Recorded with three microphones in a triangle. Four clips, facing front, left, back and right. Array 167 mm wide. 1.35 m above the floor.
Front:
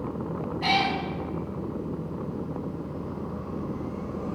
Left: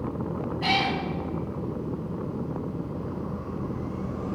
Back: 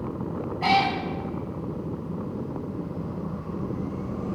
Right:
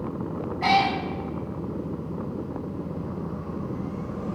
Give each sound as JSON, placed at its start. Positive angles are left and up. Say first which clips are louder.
{"t": 0.6, "sound": "a cat meowing", "louder": "right 6 dB, back 4 dB", "azimuth_deg": -125, "distance_m": 1.6}